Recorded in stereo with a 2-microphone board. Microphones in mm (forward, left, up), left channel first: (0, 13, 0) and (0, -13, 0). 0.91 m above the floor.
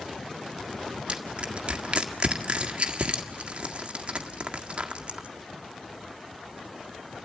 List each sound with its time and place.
1.1 s crushing: 45° right (ahead or behind), 1.7 m